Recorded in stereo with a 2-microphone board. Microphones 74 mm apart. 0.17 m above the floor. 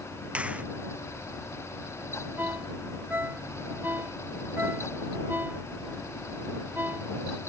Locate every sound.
0.3 s a finger snap: 20° right (ahead or behind)
2.4 s a ringtone: 30° right (ahead or behind)